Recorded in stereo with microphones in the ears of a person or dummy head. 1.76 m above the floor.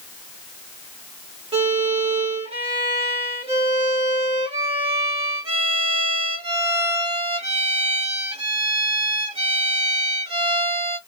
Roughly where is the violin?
Right.